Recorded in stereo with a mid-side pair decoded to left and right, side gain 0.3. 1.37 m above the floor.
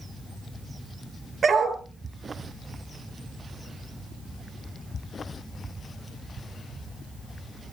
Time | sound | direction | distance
1.4 | a dog barking | 65° right | 5 m